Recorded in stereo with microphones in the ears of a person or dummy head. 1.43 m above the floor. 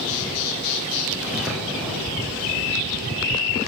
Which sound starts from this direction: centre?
Footsteps, at 1.2 s.